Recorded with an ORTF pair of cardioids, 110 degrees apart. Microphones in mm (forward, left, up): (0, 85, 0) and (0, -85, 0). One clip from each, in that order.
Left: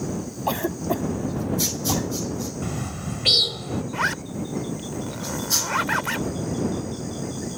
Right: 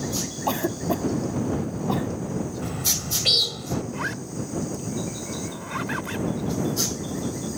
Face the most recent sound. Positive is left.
turn(degrees=45)